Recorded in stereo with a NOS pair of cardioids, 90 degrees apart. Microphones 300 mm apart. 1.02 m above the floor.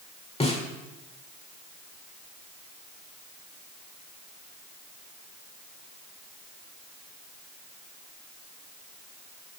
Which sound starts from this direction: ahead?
A snare drum, at 0.4 s.